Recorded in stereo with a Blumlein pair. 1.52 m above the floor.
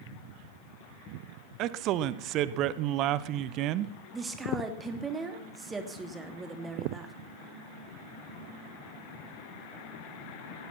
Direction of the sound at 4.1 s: 15° right.